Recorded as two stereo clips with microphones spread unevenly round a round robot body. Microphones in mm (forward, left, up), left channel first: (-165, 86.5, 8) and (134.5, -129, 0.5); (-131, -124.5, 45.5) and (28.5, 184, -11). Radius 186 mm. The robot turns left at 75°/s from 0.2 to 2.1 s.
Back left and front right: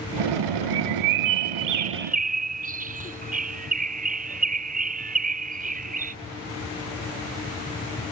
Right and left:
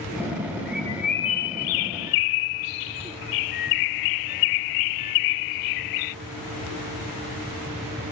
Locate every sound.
0.7 s a bird: 5° left; by 6.2 s 105° right